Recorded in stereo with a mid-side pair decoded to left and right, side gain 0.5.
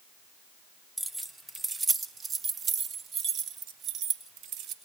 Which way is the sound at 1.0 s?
10° right.